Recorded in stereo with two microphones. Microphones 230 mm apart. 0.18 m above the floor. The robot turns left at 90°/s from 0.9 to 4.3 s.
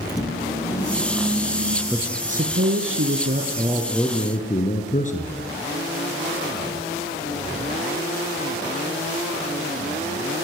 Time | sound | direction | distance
0.1 | a microwave | 15° left | 3.5 m
1.9 | a man speaking | straight ahead | 3 m